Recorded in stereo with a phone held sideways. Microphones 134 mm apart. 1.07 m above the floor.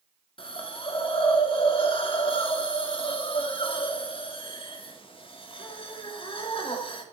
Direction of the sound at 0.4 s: 40° left (ahead or behind).